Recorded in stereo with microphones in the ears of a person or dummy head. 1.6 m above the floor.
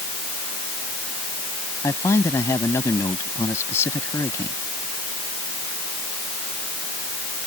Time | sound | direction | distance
1.8 | a man speaking | 15° left (ahead or behind) | ?